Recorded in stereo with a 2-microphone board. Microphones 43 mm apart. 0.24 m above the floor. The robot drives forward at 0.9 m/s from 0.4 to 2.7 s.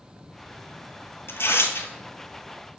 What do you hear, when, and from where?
1.3 s tearing paper: 75° left (ahead or behind), 1.0 m